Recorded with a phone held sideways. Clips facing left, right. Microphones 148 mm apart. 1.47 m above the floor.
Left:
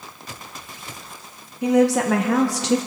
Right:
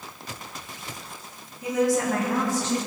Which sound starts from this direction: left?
A woman speaking, at 1.6 s.